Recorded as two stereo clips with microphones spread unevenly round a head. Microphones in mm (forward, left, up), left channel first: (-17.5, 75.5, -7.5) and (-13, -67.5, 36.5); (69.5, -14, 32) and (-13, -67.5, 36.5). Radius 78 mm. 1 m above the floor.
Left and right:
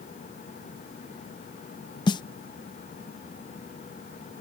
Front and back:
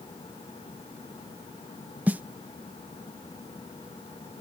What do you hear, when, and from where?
2.1 s a snare drum: 140° left